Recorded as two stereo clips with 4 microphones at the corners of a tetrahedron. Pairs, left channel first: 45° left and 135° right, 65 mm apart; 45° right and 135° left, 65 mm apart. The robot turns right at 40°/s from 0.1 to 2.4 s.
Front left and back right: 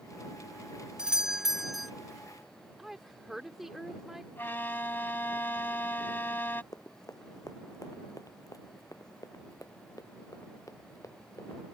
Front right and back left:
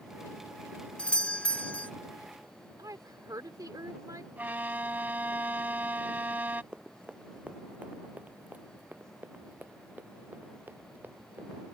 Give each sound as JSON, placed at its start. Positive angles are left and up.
{"t": 1.0, "sound": "a doorbell", "azimuth_deg": -80}
{"t": 2.8, "sound": "a woman speaking", "azimuth_deg": 140}
{"t": 4.4, "sound": "a violin", "azimuth_deg": 85}
{"t": 6.7, "sound": "running footsteps", "azimuth_deg": 65}